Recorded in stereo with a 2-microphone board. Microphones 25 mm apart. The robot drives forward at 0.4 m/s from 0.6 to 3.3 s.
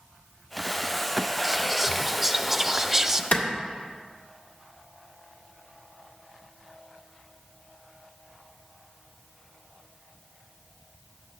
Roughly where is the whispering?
Centre.